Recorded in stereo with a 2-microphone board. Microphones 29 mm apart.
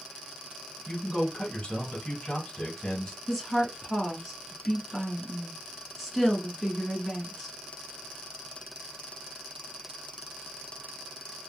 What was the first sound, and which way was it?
A man speaking, 20° left (ahead or behind).